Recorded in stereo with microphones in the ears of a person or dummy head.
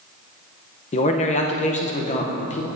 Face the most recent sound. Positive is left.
turn(degrees=35)  # may be behind; listen again after turning